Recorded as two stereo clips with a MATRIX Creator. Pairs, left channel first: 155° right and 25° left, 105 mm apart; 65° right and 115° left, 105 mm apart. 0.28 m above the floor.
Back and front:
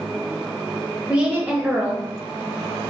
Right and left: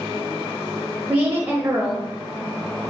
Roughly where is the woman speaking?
Left.